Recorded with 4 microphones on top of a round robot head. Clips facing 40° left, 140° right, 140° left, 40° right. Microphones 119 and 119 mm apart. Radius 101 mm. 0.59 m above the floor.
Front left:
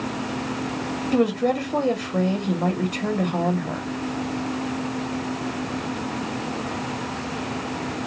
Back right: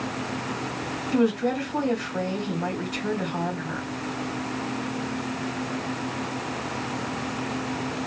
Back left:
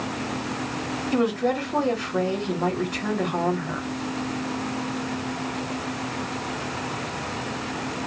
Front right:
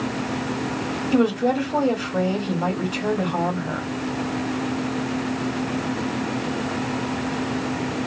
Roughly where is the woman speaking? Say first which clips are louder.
Front left 2 dB, front right 4 dB; ahead left.